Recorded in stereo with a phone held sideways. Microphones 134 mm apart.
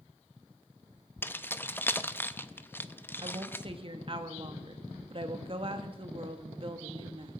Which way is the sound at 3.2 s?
40° right (ahead or behind).